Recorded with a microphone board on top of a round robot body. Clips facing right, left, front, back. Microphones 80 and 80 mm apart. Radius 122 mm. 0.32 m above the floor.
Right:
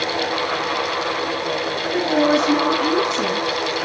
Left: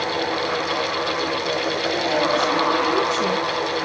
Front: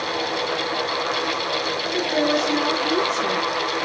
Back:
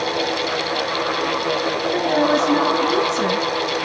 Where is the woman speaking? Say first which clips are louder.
Right 5 dB, back 3 dB; 140° right, 4.5 m.